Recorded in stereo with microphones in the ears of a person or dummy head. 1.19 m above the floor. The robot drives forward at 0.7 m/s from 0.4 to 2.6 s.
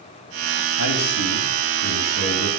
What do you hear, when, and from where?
0.8 s a man speaking: 80° left, 2 m; by 2.5 s 70° left (ahead or behind), 2 m